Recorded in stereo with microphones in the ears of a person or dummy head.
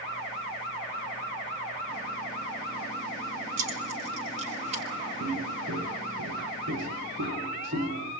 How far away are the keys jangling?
About 3.5 m.